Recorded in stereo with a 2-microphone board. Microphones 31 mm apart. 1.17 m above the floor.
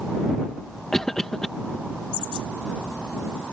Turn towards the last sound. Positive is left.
turn(degrees=15)  # may be behind; listen again after turning